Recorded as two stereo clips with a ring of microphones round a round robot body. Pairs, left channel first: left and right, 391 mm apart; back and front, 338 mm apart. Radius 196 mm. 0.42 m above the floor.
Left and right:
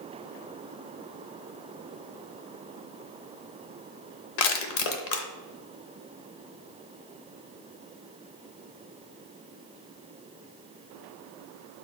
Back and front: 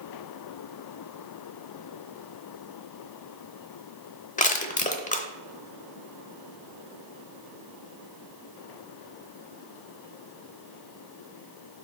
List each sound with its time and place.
4.4 s crushing: 110° left, 0.9 m